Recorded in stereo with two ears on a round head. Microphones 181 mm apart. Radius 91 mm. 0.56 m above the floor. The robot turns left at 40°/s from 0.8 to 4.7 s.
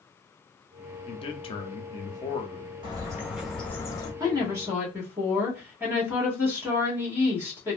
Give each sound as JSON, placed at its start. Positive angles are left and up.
{"t": 1.1, "sound": "a man speaking", "side_deg": 25, "distance_m": 0.6}
{"t": 2.8, "sound": "a bird", "azimuth_deg": -155, "distance_m": 1.1}
{"t": 4.2, "sound": "a woman speaking", "side_deg": -20, "distance_m": 1.3}